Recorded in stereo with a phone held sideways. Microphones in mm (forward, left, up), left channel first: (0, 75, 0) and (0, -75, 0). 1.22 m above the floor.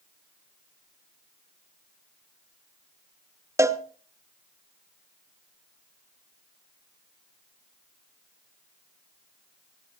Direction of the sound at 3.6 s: 20° right (ahead or behind).